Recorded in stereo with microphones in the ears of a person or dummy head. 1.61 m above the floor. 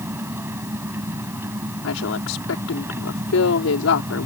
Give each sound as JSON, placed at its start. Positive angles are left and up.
{"t": 0.0, "sound": "an engine running", "side_deg": -10}
{"t": 1.8, "sound": "a woman speaking", "side_deg": 85}